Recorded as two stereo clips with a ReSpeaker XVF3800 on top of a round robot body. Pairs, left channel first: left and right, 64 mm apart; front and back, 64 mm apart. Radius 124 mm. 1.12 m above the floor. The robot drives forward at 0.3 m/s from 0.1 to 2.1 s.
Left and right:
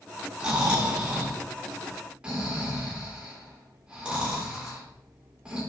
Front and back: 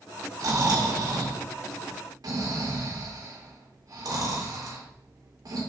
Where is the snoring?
165° right, 3.5 m.